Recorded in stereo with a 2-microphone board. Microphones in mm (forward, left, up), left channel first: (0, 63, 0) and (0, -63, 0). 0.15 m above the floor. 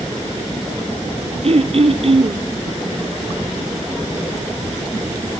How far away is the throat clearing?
About 0.9 m.